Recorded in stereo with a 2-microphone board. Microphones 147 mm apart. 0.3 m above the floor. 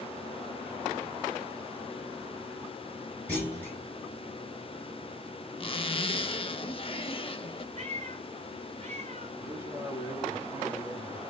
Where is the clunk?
10° left (ahead or behind), 2.5 m.